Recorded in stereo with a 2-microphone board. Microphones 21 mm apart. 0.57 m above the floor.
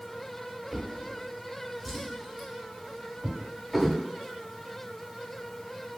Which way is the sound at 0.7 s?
10° right (ahead or behind).